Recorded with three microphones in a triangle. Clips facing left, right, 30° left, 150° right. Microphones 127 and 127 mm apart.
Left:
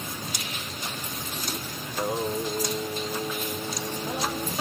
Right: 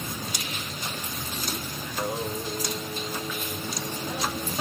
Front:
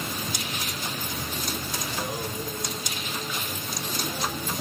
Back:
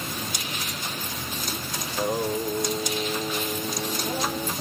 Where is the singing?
155° left, 3 m.